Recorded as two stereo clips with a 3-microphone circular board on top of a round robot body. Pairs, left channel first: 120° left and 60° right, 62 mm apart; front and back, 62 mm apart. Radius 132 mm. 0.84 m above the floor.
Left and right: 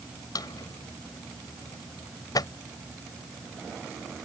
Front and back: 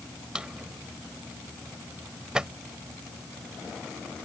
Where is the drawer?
100° left.